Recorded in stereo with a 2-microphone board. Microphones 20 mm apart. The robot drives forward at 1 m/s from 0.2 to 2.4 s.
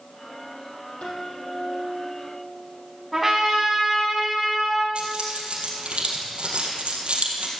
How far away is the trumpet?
About 5 m.